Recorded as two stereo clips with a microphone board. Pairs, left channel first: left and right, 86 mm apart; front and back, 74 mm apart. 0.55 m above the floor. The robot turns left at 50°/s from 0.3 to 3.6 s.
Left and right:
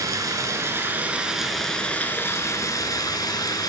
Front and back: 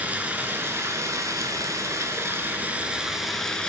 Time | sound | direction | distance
0.0 | running water | 120° right | 0.7 m